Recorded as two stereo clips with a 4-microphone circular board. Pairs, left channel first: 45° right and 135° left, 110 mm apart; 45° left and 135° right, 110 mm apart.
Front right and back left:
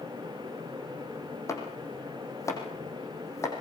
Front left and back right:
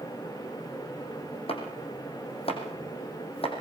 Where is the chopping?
15° left, 5.5 m.